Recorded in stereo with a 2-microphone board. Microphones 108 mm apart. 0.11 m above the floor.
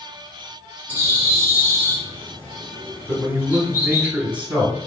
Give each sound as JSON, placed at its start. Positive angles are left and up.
{"t": 0.9, "sound": "a bird", "side_deg": 20, "distance_m": 1.7}
{"t": 3.1, "sound": "a man speaking", "side_deg": -15, "distance_m": 1.4}